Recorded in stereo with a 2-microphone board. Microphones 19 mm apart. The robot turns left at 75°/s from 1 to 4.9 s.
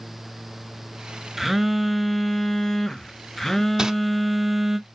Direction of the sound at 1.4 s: 10° right (ahead or behind).